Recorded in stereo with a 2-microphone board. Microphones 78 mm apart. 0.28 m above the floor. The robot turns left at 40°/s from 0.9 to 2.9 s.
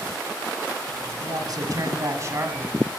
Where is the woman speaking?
90° right, 2.0 m; by 2.7 s 150° right, 2.0 m.